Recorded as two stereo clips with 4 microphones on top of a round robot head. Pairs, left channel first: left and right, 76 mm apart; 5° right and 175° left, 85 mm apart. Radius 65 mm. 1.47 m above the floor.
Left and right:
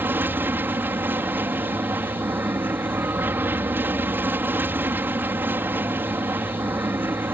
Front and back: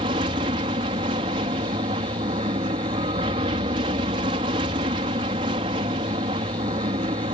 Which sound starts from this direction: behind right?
An aircraft, at 0.0 s.